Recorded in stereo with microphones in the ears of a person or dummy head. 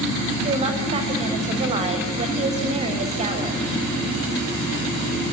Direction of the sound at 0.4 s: 35° right (ahead or behind).